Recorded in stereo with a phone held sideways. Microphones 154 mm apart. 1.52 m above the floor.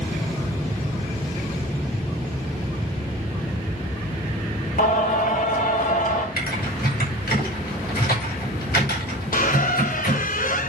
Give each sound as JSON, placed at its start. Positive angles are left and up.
{"t": 4.8, "sound": "singing", "side_deg": 65, "distance_m": 2.5}
{"t": 6.4, "sound": "typing on a keyboard", "side_deg": 80, "distance_m": 6.0}
{"t": 9.3, "sound": "a squeak", "side_deg": 60, "distance_m": 0.9}